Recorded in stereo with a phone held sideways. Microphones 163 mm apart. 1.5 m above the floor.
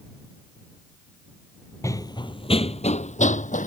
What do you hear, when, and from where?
1.8 s running footsteps: 20° left (ahead or behind); by 3.7 s 50° left (ahead or behind)